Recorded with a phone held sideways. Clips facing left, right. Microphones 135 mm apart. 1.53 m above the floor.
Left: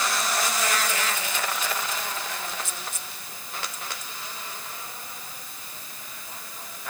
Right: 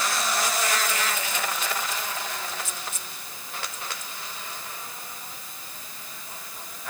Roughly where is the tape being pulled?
I don't hear tape being pulled.